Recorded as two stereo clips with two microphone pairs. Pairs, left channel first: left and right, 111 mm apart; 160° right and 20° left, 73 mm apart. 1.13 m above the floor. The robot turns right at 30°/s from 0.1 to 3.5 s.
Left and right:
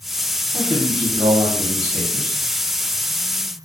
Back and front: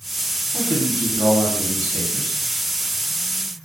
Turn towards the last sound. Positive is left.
turn(degrees=-55)